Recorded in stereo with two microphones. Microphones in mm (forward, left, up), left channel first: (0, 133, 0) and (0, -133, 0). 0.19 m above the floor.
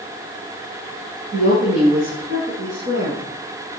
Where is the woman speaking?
55° right (ahead or behind), 9 m; by 3.2 s 45° right (ahead or behind), 8.5 m.